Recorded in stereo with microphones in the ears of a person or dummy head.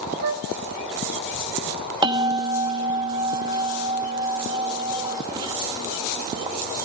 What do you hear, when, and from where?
0.2 s a flute: 45° right (ahead or behind), 0.8 m
2.0 s a bell: 20° right (ahead or behind), 1.2 m